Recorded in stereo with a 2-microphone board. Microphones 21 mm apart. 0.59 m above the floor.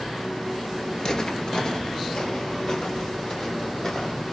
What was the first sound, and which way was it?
Footsteps, 30° left (ahead or behind).